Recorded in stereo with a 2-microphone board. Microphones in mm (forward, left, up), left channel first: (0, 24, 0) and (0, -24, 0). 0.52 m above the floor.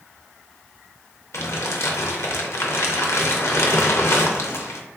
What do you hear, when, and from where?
1.3 s crumpling: 70° left (ahead or behind), 0.5 m